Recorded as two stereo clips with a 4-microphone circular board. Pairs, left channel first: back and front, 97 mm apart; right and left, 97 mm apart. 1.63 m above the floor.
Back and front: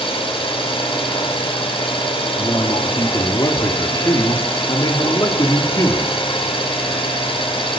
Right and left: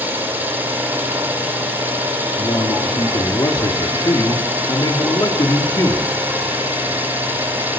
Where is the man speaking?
135° right, 3 m.